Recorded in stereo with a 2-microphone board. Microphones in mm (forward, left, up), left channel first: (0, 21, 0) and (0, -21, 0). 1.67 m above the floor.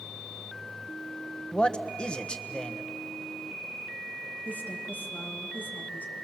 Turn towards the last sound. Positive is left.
turn(degrees=50)  # may be behind; listen again after turning